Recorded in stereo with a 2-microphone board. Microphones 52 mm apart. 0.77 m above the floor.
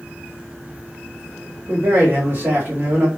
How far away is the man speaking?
About 1.5 m.